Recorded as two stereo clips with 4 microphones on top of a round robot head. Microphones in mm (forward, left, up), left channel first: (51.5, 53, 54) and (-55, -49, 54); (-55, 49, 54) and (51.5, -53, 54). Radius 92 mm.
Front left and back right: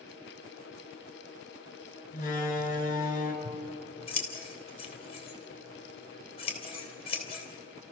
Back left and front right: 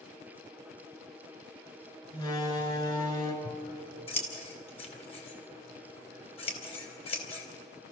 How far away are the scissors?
About 3 m.